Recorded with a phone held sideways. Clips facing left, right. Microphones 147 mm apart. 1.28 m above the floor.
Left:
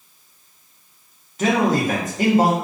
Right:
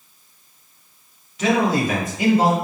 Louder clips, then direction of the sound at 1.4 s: Even; 45° left (ahead or behind).